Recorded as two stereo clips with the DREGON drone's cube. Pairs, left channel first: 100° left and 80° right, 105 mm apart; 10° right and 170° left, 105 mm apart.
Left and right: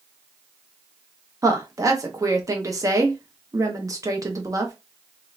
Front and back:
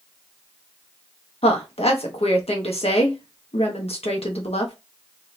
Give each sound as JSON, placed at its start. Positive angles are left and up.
{"t": 1.4, "sound": "a woman speaking", "azimuth_deg": -20, "distance_m": 1.1}